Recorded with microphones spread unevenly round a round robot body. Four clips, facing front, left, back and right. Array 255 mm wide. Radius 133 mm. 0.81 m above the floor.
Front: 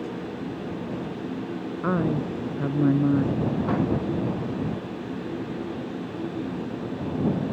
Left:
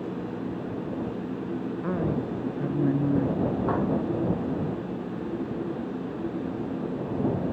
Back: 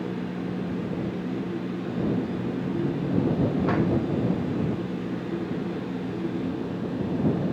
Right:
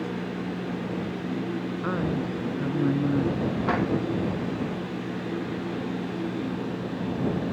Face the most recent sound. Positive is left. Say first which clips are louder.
# even, front 4 dB
turn(degrees=-5)